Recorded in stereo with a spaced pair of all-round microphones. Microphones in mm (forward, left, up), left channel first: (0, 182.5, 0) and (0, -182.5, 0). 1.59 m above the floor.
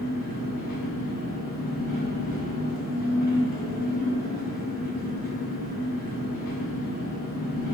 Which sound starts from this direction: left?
An engine running, at 0.0 s.